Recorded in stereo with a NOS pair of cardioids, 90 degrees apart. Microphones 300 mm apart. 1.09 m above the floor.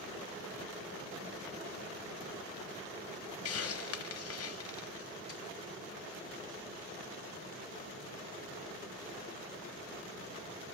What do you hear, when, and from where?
3.5 s a hiss: 55° left, 0.7 m